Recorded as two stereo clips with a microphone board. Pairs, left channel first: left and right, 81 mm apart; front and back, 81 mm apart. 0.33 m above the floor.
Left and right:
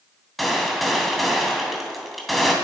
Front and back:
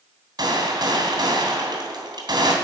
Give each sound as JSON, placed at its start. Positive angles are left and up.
{"t": 0.4, "sound": "a gunshot", "azimuth_deg": 180, "distance_m": 2.5}